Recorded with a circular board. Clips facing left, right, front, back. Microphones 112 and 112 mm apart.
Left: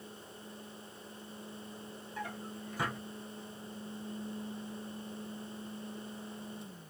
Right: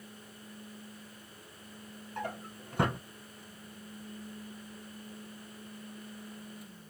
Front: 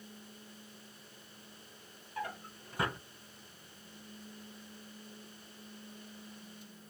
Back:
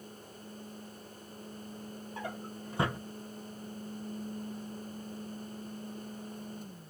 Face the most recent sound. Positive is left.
turn(degrees=-115)